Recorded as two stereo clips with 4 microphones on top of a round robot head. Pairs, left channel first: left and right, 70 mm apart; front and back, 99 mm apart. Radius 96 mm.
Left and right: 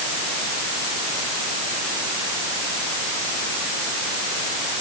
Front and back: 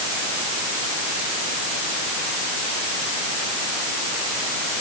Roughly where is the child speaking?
No child speaking in this recording.